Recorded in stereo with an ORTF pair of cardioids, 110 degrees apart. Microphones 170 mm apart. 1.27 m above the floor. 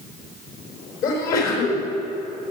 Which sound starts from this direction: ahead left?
A sneeze, at 1.0 s.